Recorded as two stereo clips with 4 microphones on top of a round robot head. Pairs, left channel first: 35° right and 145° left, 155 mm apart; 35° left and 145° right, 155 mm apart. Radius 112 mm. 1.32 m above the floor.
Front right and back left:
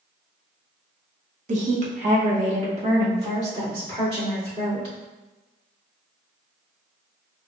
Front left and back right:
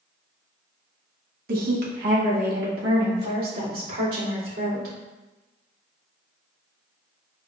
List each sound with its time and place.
1.5 s a woman speaking: 175° right, 0.9 m; by 4.9 s 165° right, 3 m